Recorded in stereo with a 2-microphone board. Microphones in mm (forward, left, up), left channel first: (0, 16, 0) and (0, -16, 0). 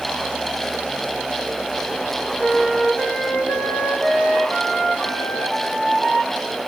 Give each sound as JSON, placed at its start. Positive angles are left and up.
{"t": 2.4, "sound": "a flute", "side_deg": 50, "distance_m": 4.5}